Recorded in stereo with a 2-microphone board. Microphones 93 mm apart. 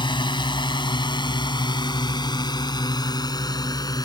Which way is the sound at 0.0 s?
60° left (ahead or behind).